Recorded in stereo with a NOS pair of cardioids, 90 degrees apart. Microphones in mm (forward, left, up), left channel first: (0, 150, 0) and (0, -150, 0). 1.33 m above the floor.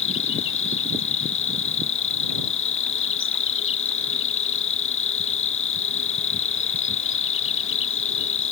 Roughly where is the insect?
Ahead left.